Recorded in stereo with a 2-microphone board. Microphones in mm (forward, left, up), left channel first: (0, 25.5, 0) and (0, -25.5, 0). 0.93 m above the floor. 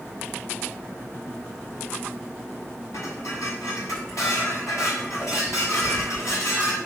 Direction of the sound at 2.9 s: 85° left.